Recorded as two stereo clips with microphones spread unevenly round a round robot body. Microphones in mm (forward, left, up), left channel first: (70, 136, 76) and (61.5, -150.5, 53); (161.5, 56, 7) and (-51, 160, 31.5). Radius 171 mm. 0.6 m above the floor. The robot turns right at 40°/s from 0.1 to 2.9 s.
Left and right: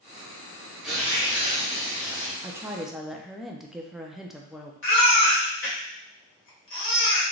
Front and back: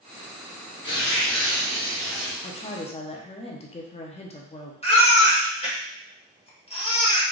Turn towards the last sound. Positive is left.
turn(degrees=40)